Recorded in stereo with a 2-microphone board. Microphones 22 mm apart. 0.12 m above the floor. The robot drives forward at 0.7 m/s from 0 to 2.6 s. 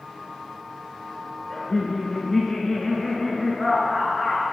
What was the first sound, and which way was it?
Laughter, 25° left (ahead or behind).